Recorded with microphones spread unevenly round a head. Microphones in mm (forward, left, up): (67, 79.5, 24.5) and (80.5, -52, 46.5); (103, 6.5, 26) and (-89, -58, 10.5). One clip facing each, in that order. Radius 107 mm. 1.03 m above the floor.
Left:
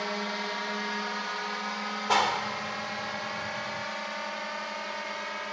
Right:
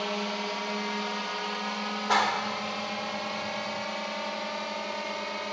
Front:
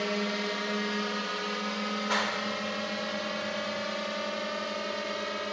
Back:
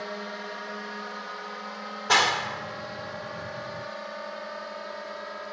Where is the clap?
Straight behind.